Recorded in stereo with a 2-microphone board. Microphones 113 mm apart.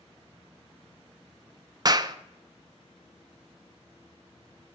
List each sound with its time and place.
1.9 s a clap: 35° right (ahead or behind), 0.5 m